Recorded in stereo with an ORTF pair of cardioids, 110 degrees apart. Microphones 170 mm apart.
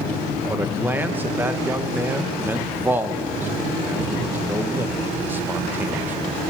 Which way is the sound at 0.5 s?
10° right.